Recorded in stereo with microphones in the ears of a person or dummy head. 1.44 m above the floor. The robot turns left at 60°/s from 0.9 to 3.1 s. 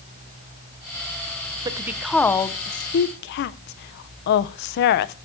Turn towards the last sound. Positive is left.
turn(degrees=55)  # may be behind; listen again after turning